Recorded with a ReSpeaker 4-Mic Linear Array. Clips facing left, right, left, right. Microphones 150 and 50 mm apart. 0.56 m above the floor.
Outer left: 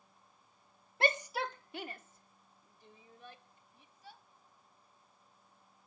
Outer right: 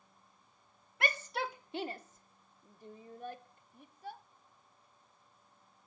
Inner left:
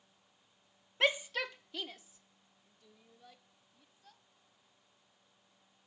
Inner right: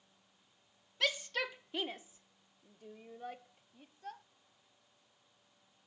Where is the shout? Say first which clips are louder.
Outer left 3 dB, inner left 3 dB; 30° left (ahead or behind); by 4.2 s 55° right (ahead or behind).